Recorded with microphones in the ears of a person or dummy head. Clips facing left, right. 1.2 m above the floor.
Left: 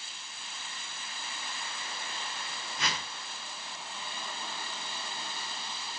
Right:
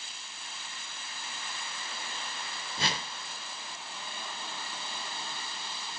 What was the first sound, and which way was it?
A whoosh, 20° right (ahead or behind).